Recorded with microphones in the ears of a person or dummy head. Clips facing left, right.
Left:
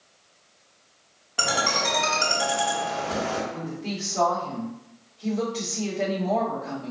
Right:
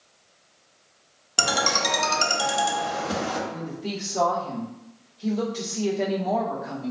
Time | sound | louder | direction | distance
1.4 | a ringtone | right 1 dB | 60° right (ahead or behind) | 0.9 m
3.5 | a woman speaking | even | 10° right (ahead or behind) | 1.0 m